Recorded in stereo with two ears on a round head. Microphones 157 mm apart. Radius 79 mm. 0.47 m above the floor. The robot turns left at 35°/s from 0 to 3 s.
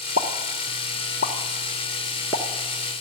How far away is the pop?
About 0.9 m.